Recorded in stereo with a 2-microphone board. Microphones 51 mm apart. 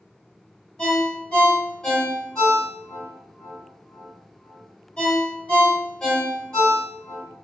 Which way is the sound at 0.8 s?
25° left (ahead or behind).